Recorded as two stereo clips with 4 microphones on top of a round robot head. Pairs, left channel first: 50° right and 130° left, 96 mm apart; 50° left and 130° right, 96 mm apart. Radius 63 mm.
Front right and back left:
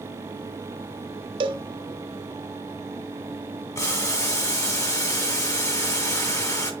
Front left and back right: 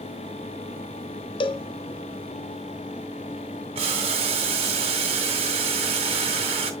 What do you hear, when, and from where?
1.4 s a cowbell: 90° left, 0.6 m
3.8 s boiling: 115° right, 2 m